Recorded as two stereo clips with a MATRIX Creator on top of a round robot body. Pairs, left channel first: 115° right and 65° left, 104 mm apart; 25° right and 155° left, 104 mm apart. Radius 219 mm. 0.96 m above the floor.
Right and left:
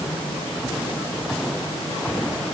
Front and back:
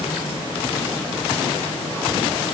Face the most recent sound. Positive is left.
No sound to turn to.